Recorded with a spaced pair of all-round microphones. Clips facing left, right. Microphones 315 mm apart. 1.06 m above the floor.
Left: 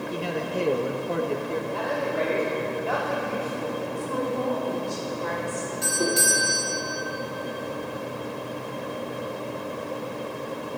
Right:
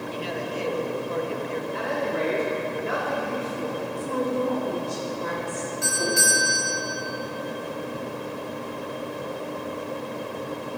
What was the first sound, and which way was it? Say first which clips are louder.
A man speaking: left 3 dB; 55° left (ahead or behind).